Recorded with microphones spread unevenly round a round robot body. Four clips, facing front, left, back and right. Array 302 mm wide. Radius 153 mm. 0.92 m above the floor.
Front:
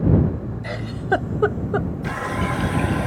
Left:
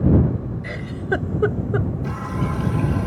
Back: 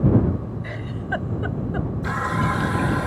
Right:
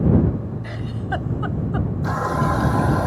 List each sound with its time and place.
0.6 s a giggle: 40° left
2.0 s a running tap: 75° right